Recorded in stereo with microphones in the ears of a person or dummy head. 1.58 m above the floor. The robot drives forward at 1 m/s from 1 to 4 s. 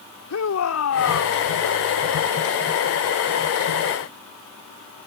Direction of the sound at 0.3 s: 85° left.